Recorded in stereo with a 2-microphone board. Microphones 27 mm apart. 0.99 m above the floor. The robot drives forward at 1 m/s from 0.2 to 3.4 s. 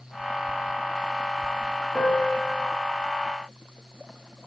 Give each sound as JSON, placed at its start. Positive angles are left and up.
{"t": 1.9, "sound": "a piano", "side_deg": 40, "distance_m": 3.5}